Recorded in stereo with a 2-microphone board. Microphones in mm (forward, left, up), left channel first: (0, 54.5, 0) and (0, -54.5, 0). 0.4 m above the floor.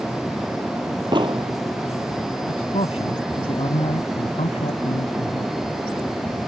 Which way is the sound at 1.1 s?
45° right (ahead or behind).